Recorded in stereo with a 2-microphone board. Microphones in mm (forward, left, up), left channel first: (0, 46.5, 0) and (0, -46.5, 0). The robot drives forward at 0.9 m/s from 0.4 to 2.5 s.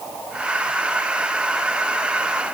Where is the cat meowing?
No cat meowing in this recording.